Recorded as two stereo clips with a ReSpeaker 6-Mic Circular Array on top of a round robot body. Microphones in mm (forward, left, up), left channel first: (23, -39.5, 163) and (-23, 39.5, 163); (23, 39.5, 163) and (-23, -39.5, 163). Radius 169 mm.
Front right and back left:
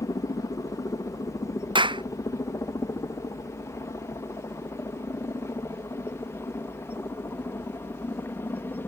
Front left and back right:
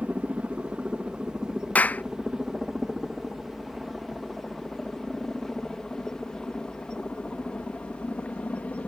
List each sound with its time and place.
0.0 s a helicopter: 50° right; by 8.9 s 10° right
1.8 s a clap: 130° left